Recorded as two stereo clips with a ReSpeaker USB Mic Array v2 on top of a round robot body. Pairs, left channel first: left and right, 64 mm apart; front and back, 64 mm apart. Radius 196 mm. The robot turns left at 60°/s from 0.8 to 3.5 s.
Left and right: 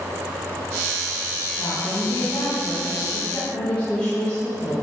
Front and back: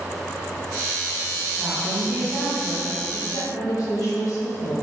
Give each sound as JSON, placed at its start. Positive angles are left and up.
{"t": 1.6, "sound": "a woman speaking", "azimuth_deg": 130, "distance_m": 5.5}